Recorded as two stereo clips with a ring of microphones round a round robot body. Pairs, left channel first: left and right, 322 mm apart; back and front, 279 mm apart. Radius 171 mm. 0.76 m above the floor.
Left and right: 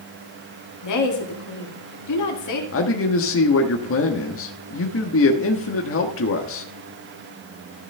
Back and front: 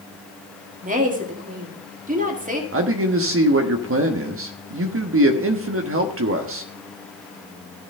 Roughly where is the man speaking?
Ahead left.